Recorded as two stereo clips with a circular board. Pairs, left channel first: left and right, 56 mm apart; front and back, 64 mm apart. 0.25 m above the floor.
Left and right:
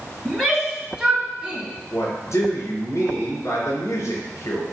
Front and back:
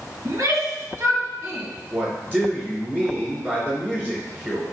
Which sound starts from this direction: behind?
A shout, at 0.2 s.